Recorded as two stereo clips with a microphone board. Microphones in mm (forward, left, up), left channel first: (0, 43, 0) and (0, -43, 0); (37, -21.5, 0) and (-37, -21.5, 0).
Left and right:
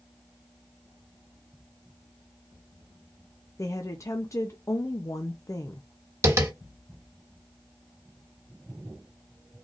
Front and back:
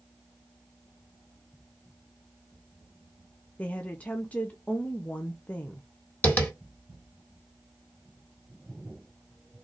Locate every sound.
3.6 s a woman speaking: 65° left, 0.5 m
6.2 s tapping: 55° right, 1.6 m